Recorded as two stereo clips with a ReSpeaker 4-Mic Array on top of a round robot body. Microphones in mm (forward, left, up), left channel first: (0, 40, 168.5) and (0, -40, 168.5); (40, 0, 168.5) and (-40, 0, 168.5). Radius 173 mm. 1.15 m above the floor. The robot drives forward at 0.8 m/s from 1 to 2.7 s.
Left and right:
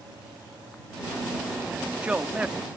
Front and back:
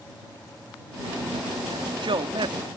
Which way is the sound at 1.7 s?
165° right.